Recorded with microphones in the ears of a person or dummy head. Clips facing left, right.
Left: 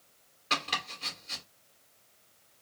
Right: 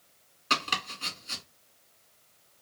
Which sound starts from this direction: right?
Chopping, at 0.5 s.